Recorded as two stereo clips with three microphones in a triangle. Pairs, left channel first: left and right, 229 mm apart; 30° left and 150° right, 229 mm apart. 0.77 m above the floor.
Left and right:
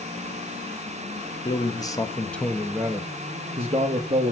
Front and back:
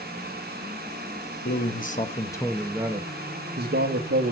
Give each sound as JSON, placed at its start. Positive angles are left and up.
{"t": 1.4, "sound": "a man speaking", "azimuth_deg": 30, "distance_m": 1.2}